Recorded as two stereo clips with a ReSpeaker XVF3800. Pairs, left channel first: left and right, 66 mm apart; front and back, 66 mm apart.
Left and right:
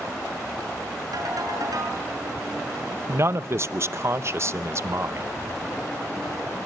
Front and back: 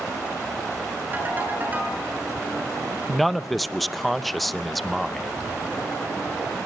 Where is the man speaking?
90° right, 0.7 m.